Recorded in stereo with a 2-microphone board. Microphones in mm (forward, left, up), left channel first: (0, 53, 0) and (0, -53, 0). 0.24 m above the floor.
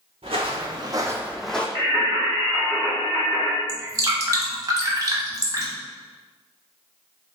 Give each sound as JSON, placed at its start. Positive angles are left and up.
{"t": 0.2, "sound": "footsteps", "side_deg": -65, "distance_m": 1.0}
{"t": 1.8, "sound": "singing", "side_deg": -50, "distance_m": 1.5}
{"t": 3.7, "sound": "dripping", "side_deg": -35, "distance_m": 0.9}